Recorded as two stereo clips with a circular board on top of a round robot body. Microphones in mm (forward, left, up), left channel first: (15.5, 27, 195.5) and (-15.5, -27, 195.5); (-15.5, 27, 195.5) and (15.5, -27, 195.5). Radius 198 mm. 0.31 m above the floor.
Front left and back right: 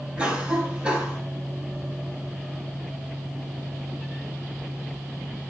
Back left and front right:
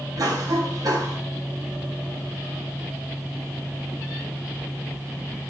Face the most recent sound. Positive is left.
turn(degrees=-50)